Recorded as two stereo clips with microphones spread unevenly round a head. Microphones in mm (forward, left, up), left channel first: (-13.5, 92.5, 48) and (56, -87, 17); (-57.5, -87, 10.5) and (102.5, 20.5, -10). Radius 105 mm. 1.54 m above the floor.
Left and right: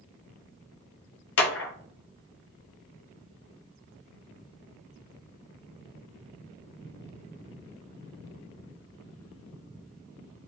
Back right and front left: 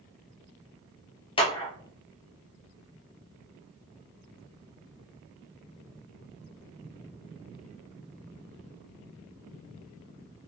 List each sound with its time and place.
1.4 s a clap: 145° left, 0.5 m